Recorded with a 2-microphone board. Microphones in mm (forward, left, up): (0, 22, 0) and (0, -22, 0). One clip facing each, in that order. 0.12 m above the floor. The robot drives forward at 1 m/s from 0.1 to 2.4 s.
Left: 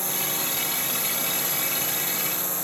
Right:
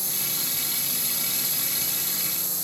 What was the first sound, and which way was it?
A drone, 40° left (ahead or behind).